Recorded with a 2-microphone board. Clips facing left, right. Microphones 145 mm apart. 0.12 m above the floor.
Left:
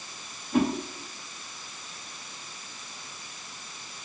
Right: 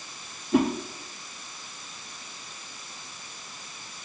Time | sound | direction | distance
0.5 | a whoosh | 80° right | 3.5 m